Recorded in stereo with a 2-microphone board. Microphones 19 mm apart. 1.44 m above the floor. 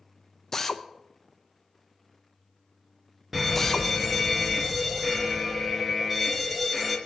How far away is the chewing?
No chewing in this recording.